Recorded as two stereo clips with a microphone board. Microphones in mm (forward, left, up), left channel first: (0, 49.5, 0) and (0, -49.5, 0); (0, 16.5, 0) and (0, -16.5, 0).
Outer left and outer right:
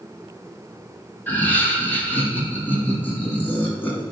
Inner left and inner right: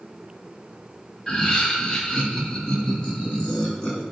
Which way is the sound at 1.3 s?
20° left (ahead or behind).